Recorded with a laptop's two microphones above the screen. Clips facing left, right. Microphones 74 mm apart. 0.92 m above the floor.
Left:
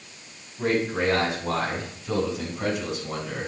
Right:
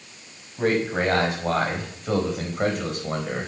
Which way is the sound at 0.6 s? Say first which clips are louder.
Right 2 dB; 65° right (ahead or behind).